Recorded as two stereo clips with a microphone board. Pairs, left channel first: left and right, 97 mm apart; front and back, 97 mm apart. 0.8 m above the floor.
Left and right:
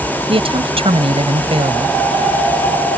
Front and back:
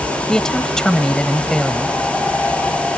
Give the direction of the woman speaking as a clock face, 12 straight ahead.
3 o'clock.